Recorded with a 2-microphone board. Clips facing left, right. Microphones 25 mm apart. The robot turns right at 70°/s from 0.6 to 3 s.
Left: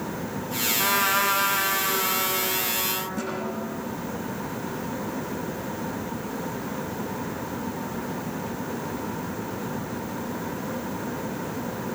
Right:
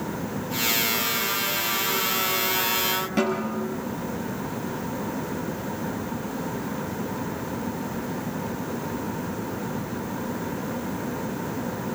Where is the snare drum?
65° right (ahead or behind), 6.5 m.